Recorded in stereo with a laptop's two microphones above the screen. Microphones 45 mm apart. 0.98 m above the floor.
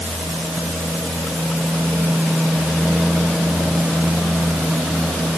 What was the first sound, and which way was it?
Only background noise.